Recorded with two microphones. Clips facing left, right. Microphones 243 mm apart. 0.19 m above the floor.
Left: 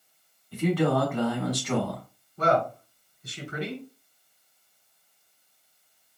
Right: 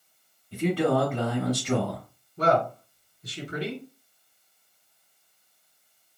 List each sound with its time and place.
0.5 s a man speaking: 30° right (ahead or behind), 1.3 m
2.4 s a man speaking: 35° right (ahead or behind), 1.9 m